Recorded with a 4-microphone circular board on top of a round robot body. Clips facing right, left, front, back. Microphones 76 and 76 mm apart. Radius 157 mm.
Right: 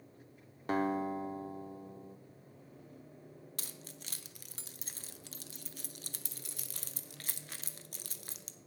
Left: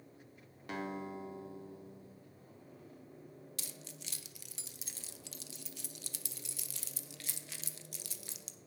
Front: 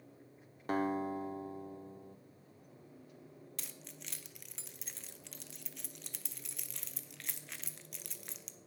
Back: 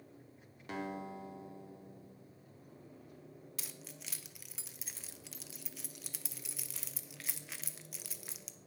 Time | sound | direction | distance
0.7 | a guitar | 40° right | 0.6 m
3.6 | keys jangling | 95° right | 0.9 m